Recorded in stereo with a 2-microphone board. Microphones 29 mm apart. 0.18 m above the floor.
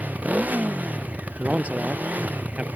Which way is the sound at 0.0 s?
65° right (ahead or behind).